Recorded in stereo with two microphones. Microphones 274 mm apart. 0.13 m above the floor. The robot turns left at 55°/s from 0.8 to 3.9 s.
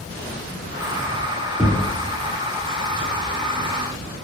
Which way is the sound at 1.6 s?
5° right (ahead or behind).